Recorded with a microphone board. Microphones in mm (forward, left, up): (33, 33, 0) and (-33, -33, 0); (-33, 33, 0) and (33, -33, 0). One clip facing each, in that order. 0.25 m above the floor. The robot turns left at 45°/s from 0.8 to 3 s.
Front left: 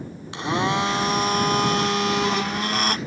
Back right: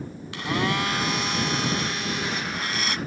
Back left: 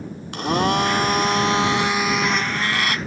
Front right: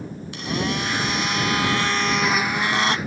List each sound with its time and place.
0.3 s a blender: 110° left; by 3.0 s 10° left